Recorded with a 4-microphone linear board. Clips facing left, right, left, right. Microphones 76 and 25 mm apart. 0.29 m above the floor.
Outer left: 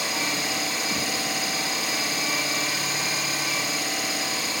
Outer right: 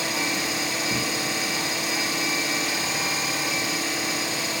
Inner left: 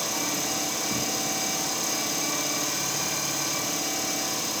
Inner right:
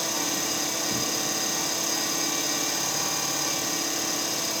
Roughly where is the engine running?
Right.